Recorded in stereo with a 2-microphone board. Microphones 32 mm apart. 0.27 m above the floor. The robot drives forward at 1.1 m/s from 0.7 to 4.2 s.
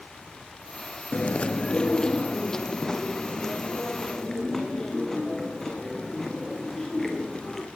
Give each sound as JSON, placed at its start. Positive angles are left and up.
{"t": 1.1, "sound": "chewing", "side_deg": 50, "distance_m": 0.7}